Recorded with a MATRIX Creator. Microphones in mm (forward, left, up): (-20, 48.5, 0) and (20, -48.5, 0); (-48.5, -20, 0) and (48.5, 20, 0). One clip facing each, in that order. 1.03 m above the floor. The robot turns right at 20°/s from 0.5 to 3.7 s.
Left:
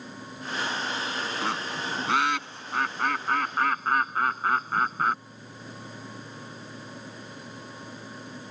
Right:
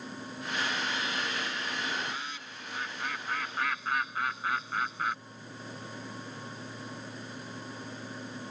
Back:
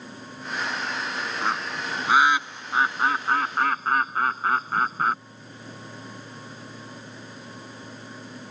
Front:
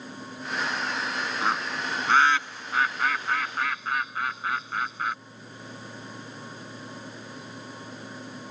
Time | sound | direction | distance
1.4 | a bird | 110° left | ?